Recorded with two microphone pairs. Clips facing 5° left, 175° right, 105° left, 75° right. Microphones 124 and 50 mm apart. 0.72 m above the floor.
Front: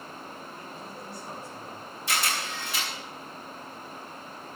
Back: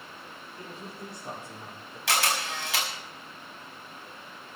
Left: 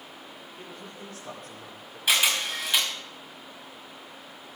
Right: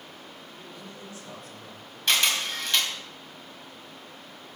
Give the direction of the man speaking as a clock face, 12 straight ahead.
7 o'clock.